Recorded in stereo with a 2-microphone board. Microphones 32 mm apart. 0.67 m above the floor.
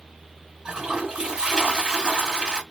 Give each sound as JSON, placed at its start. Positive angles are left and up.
{"t": 0.7, "sound": "a toilet flushing", "side_deg": -25, "distance_m": 1.9}